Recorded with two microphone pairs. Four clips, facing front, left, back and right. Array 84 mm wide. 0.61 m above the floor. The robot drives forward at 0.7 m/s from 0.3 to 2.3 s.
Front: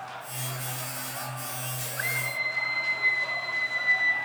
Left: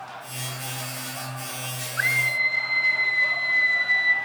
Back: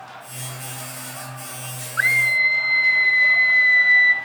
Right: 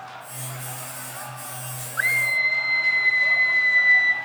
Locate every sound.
2.0 s a scream: 170° right, 1.3 m; by 4.1 s 175° right, 1.5 m